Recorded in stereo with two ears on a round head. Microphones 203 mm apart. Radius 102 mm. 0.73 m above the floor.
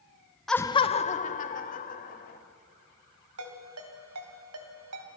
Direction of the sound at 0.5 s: Centre (ahead or behind).